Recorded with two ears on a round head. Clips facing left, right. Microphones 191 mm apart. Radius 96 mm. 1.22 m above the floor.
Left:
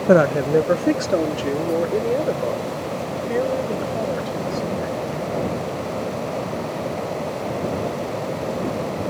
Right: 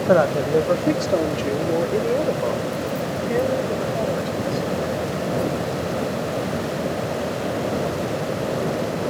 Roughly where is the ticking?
I don't hear ticking.